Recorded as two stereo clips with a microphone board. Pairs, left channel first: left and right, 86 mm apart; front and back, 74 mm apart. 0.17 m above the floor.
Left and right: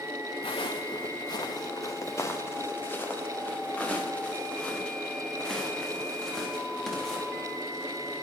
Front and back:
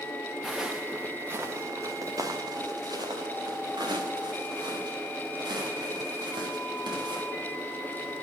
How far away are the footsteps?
About 1.3 m.